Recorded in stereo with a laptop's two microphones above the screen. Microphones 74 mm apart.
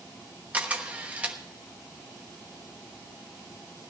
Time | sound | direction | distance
0.5 | a camera shutter | 20° right (ahead or behind) | 1.1 m